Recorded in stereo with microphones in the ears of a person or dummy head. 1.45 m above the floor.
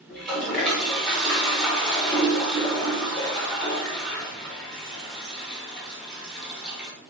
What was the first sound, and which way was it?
A toilet flushing, 5° left (ahead or behind).